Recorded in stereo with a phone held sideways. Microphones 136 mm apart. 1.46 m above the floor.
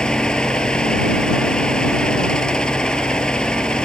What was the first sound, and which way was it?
A fan, 5° left (ahead or behind).